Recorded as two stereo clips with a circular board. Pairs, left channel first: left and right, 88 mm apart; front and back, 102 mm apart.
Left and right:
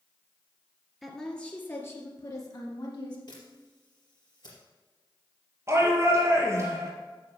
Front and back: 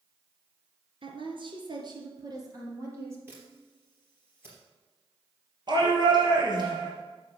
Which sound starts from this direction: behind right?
A shout, at 5.7 s.